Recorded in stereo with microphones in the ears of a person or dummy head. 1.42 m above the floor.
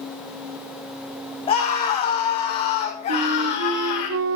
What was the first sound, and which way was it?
A scream, 25° left (ahead or behind).